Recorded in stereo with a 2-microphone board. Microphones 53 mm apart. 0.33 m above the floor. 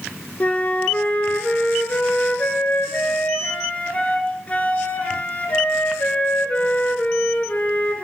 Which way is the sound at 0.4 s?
30° left (ahead or behind).